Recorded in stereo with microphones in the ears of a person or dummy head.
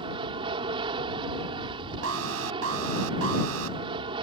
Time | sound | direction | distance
0.0 | an aircraft | 30° right (ahead or behind) | ?
2.0 | an alarm | 85° right | ?